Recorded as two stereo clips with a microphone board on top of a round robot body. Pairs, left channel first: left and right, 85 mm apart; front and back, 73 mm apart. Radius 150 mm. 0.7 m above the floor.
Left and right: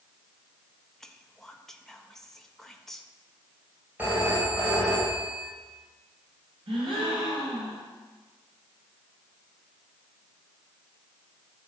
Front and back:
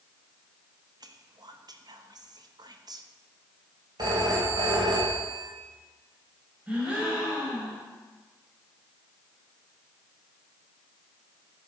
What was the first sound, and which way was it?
Whispering, 175° left.